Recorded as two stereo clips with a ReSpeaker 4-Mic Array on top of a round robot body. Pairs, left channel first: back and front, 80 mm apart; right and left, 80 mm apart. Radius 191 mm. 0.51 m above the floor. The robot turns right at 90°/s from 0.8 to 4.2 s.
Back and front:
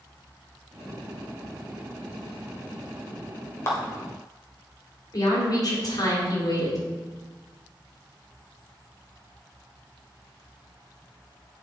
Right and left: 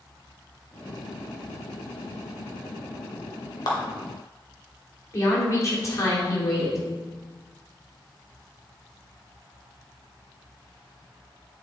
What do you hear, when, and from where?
3.7 s a clap: 125° right, 2 m; by 3.8 s 115° right, 2 m
5.1 s a woman speaking: 140° right, 2.5 m